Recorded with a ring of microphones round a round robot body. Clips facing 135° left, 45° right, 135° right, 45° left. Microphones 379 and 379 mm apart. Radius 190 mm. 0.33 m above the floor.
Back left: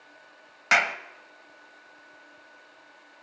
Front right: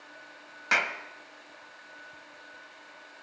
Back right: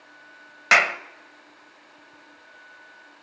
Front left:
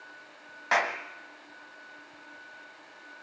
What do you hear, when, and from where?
0.7 s a clap: 150° right, 1.2 m